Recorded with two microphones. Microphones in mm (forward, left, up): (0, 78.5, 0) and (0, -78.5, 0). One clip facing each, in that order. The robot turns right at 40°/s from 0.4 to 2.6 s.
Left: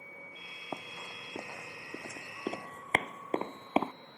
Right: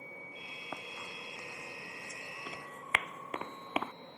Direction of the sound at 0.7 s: 20° left (ahead or behind).